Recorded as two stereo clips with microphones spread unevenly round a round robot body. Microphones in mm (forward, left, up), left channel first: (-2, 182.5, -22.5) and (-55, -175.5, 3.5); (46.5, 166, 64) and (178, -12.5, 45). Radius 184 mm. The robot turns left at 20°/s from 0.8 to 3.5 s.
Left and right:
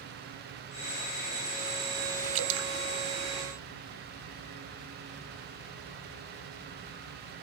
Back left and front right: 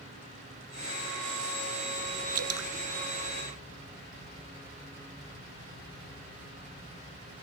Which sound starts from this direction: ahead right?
Dripping, at 2.4 s.